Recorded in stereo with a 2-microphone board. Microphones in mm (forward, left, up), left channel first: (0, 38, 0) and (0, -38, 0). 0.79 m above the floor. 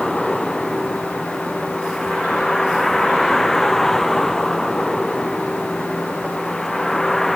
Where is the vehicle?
5° left (ahead or behind).